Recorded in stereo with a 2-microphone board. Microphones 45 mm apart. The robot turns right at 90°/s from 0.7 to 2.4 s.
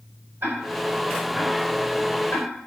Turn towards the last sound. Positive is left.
turn(degrees=75)  # may be behind; listen again after turning